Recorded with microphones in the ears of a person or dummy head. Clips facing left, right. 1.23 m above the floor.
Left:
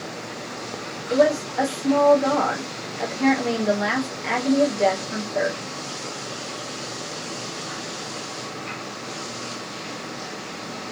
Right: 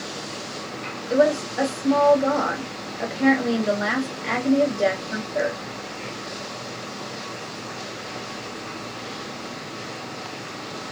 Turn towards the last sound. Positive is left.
turn(degrees=0)  # may be behind; listen again after turning